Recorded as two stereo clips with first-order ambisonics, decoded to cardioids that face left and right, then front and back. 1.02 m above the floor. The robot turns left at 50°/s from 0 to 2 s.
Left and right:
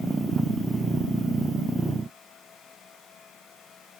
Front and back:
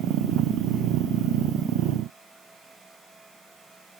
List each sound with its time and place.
Only background noise.